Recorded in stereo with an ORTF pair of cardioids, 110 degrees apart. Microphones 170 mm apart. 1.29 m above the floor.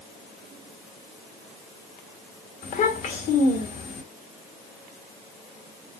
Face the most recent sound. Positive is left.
turn(degrees=55)